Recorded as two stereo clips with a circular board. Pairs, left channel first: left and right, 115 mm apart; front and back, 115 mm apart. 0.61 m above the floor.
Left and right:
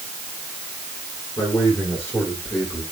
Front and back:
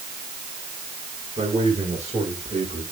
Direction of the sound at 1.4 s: 165° left.